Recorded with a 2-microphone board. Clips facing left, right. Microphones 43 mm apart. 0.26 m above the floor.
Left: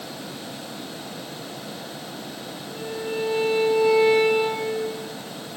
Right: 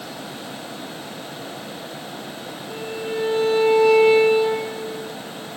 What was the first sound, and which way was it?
A violin, 65° right (ahead or behind).